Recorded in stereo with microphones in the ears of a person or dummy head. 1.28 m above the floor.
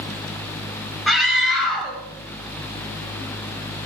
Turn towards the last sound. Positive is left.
turn(degrees=0)  # may be behind; listen again after turning